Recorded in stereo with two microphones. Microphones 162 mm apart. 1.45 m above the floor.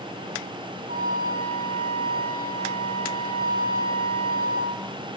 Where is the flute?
55° right (ahead or behind), 0.7 m.